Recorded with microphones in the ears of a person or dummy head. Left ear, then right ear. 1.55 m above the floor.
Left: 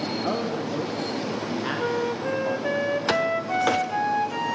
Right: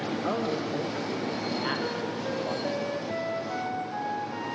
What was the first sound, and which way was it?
A man speaking, centre (ahead or behind).